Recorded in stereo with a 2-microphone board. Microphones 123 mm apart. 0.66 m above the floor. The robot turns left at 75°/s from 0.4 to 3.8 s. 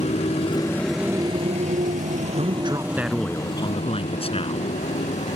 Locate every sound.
0.0 s a motorcycle: 60° left (ahead or behind); by 5.4 s 65° left (ahead or behind)
2.4 s a man speaking: 120° right; by 4.7 s 130° left